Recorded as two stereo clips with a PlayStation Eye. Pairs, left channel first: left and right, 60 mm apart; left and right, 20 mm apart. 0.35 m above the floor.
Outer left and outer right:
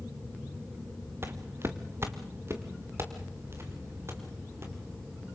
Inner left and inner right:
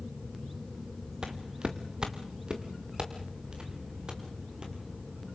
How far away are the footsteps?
About 1.9 m.